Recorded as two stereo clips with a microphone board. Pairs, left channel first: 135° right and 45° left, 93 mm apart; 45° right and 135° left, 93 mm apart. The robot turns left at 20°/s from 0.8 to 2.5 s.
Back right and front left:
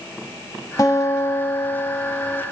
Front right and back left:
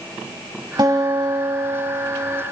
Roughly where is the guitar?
Behind.